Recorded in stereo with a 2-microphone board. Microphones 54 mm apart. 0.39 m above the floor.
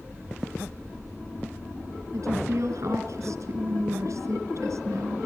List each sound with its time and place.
2.1 s a woman speaking: 70° right (ahead or behind), 3 m